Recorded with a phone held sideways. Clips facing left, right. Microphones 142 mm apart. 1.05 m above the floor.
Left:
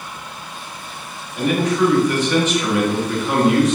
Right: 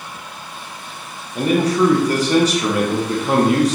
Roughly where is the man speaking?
Right.